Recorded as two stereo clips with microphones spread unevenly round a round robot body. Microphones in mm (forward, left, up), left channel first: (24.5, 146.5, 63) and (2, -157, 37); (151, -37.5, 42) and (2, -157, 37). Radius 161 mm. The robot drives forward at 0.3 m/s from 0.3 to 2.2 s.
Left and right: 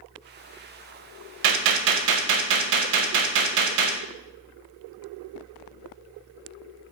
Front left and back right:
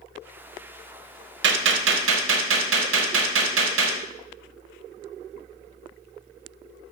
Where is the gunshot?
110° right, 0.5 m; by 4.0 s 130° right, 0.6 m.